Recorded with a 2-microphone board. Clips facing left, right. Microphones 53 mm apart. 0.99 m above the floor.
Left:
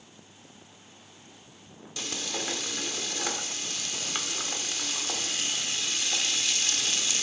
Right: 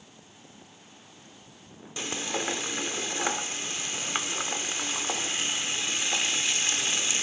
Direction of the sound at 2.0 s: 25° right (ahead or behind).